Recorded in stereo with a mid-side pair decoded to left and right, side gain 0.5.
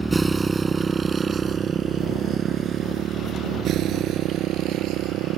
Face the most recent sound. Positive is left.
turn(degrees=-70)